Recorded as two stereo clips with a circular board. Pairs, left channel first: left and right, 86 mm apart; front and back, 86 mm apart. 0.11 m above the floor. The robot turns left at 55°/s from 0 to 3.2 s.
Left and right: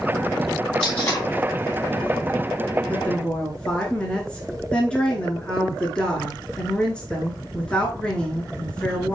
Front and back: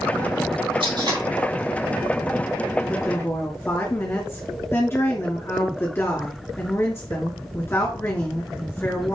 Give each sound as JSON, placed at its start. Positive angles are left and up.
{"t": 0.8, "sound": "tape being pulled", "azimuth_deg": 165, "distance_m": 3.0}
{"t": 2.9, "sound": "a woman speaking", "azimuth_deg": 40, "distance_m": 1.6}